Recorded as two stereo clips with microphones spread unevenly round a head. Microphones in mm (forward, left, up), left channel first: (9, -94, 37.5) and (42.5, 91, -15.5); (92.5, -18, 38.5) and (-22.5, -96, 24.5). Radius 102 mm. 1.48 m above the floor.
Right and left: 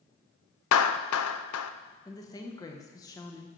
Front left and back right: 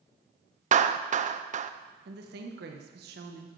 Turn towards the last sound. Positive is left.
turn(degrees=-170)